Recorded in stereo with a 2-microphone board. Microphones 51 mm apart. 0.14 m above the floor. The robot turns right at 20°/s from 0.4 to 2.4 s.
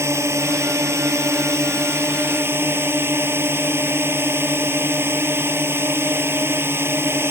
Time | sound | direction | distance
0.0 | a drone | 100° right | ?